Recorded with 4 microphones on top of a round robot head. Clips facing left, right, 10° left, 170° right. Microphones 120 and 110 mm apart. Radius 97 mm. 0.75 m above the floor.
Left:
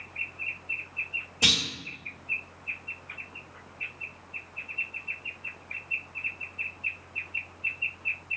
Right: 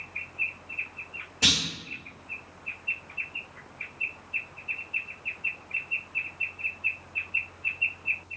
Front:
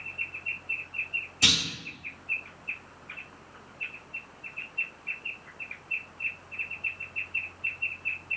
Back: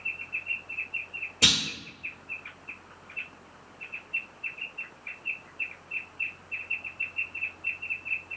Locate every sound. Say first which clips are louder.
1.4 s a clunk: right 1 dB, back 1 dB; 165° left, 1.5 m